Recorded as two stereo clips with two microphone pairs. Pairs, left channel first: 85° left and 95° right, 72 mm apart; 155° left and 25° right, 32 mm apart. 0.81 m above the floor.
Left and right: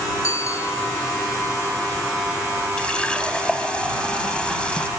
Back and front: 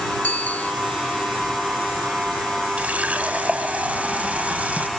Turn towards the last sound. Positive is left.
turn(degrees=10)